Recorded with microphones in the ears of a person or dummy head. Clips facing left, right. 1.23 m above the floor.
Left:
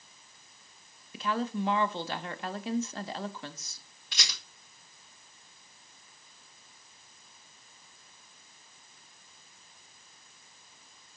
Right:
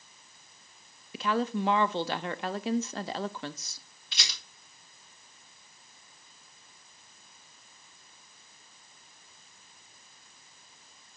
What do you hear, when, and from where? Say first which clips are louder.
1.1 s a woman speaking: right 3 dB; 45° right (ahead or behind), 0.5 m
4.1 s a rattle: left 1 dB; 45° left (ahead or behind), 5 m